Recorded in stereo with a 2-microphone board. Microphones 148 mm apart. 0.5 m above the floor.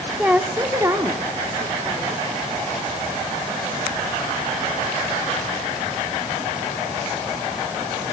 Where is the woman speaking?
10° right (ahead or behind), 1.4 m; by 2.2 s 25° right (ahead or behind), 2 m.